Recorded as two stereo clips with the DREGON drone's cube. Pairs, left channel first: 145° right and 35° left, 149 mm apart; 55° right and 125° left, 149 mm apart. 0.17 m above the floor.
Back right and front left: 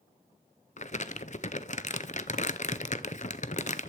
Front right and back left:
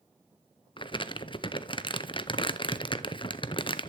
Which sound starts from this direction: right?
Crumpling, at 0.8 s.